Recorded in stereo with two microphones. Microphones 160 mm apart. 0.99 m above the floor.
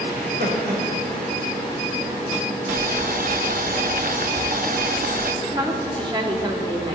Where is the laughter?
85° right, 4.5 m.